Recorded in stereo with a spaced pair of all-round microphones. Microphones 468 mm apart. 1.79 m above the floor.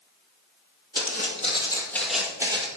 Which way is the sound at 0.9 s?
20° left (ahead or behind).